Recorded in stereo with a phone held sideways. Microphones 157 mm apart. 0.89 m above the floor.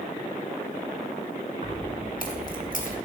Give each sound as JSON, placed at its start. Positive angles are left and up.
{"t": 1.6, "sound": "keys jangling", "side_deg": 70, "distance_m": 2.0}